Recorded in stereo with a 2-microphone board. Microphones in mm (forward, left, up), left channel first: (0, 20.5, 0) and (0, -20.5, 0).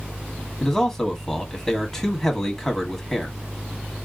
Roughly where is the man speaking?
Centre.